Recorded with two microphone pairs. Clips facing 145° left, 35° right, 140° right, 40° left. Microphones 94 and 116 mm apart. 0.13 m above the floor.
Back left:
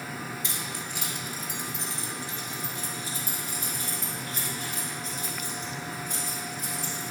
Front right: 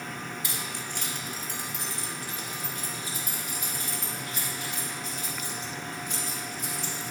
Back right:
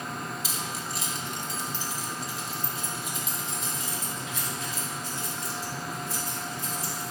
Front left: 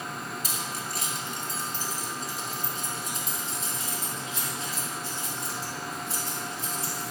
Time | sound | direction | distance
0.4 | keys jangling | 50° left | 1.9 m